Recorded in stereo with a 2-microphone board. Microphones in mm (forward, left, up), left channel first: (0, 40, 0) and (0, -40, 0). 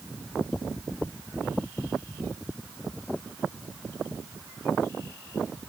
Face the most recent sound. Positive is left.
No sound to turn to.